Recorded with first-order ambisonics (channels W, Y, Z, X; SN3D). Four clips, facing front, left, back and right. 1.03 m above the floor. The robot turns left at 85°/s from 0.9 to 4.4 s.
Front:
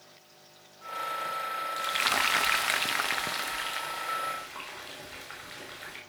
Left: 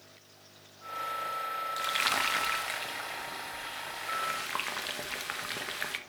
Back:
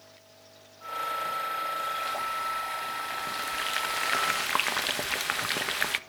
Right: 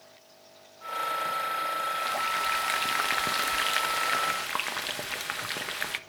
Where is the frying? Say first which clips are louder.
Even, front 3 dB; 55° left, 0.5 m; by 6.0 s 165° right, 0.5 m.